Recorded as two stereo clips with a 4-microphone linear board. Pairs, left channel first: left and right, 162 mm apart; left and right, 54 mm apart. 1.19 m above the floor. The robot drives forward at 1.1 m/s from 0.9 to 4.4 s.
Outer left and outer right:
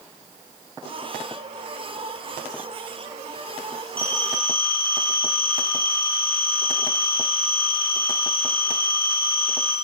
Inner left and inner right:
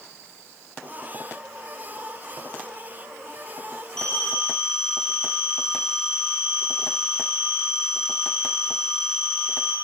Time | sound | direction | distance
4.0 | a phone ringing | 10° left (ahead or behind) | 10 m